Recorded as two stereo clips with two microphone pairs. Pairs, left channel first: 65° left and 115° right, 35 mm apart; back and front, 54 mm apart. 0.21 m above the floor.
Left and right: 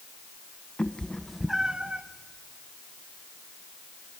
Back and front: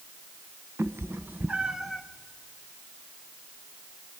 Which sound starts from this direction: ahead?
A cat meowing, at 0.8 s.